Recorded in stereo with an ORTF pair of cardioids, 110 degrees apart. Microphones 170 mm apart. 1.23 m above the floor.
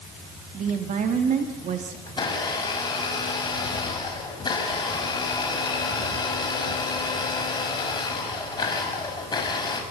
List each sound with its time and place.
0.5 s a woman speaking: 50° right, 2 m
2.1 s a blender: 25° left, 5 m